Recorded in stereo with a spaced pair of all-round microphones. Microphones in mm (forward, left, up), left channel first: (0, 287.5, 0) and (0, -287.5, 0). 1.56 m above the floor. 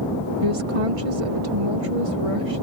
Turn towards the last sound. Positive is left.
turn(degrees=-65)  # may be behind; listen again after turning